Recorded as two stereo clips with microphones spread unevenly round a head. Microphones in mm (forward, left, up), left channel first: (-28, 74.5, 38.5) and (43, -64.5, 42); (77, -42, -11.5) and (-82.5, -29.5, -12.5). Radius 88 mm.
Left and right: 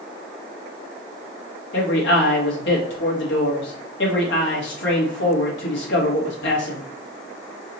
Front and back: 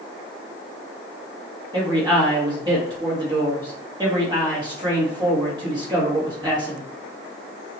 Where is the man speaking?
105° left, 1.9 m.